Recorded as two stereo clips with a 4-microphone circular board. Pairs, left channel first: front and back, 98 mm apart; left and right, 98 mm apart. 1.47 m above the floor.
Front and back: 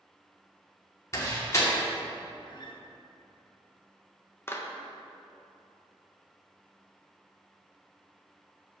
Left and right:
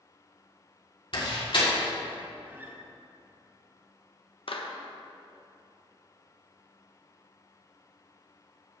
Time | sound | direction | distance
1.1 | a door slam | 60° left | 2.5 m
2.5 | a guitar | 25° right | 0.9 m
4.5 | a clap | 65° left | 1.0 m